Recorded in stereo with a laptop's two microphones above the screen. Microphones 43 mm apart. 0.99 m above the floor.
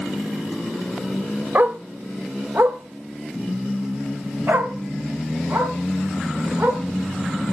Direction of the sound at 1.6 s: 45° right (ahead or behind).